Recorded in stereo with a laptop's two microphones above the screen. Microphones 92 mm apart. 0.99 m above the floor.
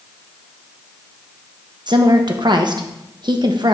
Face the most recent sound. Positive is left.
turn(degrees=-50)  # may be behind; listen again after turning